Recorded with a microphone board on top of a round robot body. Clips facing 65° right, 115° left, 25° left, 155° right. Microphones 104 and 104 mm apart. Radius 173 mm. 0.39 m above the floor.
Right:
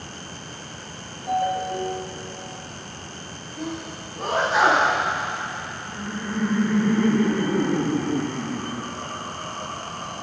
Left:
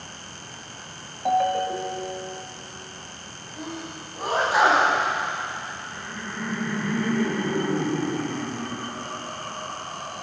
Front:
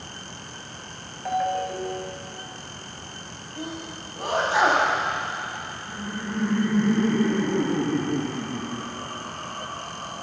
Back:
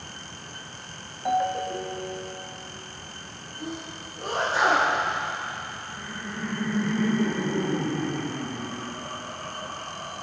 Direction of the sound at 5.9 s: 10° right.